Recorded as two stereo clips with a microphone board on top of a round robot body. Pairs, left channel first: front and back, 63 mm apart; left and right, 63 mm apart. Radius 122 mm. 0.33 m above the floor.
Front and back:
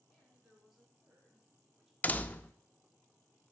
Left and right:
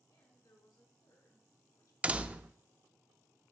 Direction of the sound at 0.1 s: 95° left.